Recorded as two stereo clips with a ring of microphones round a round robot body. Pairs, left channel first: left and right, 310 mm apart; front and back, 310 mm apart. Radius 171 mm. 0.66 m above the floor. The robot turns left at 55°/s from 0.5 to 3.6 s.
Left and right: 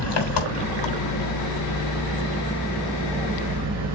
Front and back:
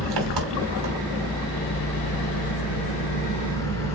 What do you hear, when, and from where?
0.0 s an engine running: 130° left, 3 m; by 4.0 s 45° right, 3 m